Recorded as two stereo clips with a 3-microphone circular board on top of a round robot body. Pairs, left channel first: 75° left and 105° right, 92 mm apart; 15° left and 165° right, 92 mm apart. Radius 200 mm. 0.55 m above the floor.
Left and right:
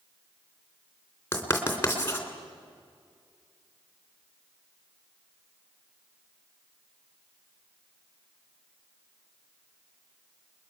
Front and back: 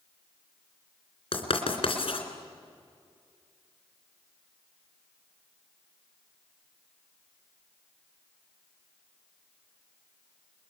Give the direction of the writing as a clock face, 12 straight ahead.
12 o'clock.